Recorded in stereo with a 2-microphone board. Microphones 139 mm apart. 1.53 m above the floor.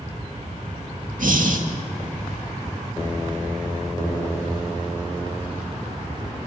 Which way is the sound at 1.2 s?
75° right (ahead or behind).